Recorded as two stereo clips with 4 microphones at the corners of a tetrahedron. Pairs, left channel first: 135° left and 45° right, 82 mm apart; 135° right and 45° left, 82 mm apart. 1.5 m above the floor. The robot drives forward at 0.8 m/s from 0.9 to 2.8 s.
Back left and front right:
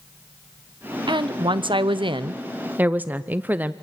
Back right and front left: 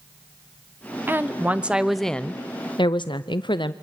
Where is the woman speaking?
20° right, 1.3 m; by 3.7 s 115° right, 0.5 m.